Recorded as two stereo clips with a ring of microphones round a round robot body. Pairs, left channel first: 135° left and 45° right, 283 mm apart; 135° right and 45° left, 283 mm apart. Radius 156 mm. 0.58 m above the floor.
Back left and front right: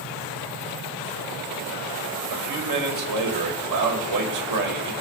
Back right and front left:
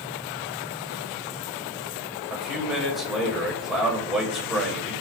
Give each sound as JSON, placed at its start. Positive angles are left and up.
{"t": 2.3, "sound": "a man speaking", "azimuth_deg": -45, "distance_m": 3.0}